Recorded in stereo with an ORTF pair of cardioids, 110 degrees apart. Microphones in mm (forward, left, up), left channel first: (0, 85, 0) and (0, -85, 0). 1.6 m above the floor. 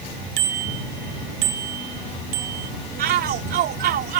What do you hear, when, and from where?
0.4 s a bicycle bell: 65° right
3.0 s a shout: 65° right